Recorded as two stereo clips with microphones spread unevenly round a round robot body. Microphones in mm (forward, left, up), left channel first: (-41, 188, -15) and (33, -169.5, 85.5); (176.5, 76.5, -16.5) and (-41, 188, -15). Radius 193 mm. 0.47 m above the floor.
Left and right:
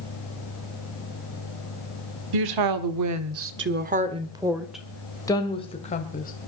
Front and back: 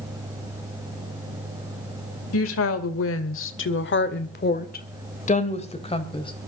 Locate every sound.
2.3 s a woman speaking: 50° right, 1.5 m; by 6.3 s 40° left, 2.5 m